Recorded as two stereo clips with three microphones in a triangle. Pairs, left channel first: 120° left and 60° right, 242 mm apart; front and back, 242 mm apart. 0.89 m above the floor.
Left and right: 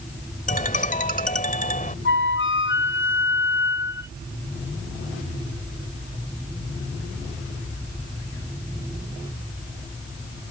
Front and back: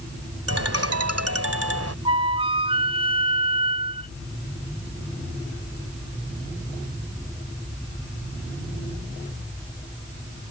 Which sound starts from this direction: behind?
A ringtone, at 0.5 s.